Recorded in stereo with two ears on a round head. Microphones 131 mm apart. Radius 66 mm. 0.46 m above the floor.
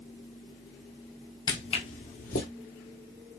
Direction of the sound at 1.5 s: 25° left (ahead or behind).